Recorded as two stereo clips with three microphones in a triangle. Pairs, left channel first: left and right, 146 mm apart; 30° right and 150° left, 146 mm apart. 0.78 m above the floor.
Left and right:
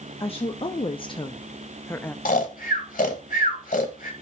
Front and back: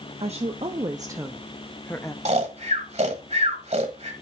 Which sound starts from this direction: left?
Snoring, at 2.2 s.